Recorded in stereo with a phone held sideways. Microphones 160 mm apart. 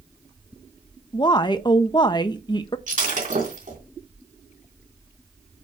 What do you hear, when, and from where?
1.1 s a woman speaking: 30° left (ahead or behind), 0.7 m
2.9 s breaking glass: 55° right (ahead or behind), 2.5 m